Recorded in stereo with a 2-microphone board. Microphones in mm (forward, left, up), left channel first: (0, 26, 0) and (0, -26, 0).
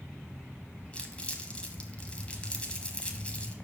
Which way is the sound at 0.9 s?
20° left (ahead or behind).